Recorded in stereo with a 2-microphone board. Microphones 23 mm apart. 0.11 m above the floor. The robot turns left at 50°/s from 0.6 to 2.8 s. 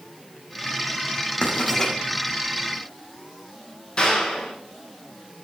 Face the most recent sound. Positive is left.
turn(degrees=40)  # may be behind; listen again after turning